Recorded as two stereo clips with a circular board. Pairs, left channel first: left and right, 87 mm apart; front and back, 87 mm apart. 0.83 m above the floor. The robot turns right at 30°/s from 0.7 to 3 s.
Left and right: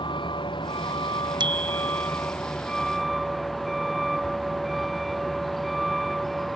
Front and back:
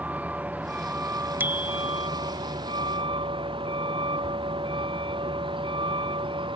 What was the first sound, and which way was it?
A vehicle, 110° left.